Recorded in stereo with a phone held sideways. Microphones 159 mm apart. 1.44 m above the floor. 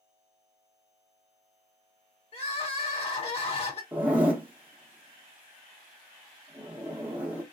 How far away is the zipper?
About 1.0 m.